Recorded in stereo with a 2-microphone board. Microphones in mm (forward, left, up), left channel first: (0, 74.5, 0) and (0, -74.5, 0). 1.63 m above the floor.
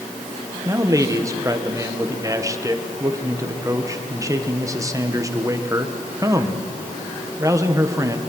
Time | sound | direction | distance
0.7 | a man speaking | 20° right (ahead or behind) | 1.6 m